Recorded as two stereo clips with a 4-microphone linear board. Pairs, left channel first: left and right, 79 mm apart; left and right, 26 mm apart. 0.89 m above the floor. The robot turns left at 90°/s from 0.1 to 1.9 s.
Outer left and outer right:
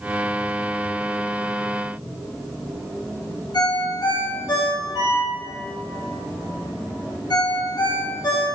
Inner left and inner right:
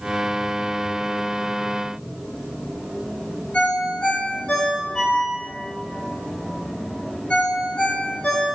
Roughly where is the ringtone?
Left.